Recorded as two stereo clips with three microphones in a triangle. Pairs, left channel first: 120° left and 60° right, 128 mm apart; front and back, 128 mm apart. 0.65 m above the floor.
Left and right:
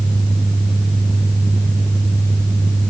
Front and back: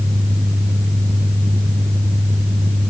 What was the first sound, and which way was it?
Only background noise.